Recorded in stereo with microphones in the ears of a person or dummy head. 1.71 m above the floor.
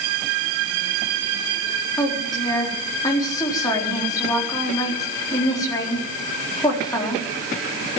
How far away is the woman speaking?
About 4 m.